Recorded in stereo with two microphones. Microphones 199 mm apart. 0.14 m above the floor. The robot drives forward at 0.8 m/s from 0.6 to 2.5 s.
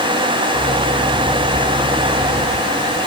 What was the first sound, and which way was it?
Only background noise.